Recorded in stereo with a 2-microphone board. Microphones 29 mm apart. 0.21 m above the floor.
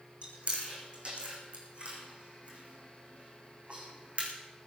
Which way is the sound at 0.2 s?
45° right (ahead or behind).